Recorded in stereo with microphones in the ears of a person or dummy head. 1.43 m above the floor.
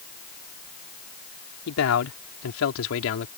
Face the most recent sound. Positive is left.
turn(degrees=70)  # may be behind; listen again after turning